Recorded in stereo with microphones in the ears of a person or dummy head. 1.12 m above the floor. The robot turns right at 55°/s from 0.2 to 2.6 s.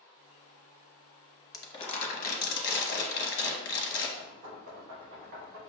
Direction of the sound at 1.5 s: 20° left.